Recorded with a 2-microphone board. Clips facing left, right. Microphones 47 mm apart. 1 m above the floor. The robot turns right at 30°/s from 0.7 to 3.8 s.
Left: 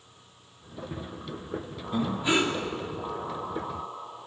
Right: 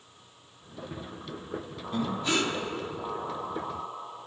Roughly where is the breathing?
Centre.